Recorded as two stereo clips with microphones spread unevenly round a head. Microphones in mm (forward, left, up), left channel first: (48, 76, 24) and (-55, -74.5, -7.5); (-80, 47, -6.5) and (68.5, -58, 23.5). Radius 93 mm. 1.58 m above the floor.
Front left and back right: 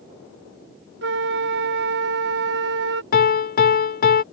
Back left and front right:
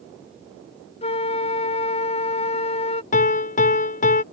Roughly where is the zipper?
No zipper in this recording.